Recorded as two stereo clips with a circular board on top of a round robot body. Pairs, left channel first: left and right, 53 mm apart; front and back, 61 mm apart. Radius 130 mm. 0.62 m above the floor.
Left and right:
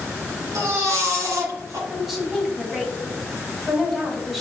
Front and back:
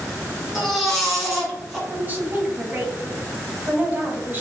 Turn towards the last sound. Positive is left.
turn(degrees=180)